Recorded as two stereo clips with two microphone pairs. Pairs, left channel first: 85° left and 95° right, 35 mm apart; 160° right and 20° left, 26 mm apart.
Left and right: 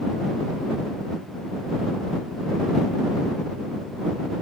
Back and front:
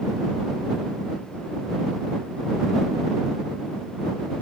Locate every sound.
Only background noise.